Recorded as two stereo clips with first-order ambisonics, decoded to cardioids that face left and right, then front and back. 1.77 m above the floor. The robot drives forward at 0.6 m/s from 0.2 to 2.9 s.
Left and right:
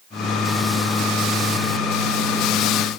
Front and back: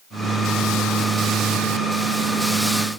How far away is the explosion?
I don't hear an explosion.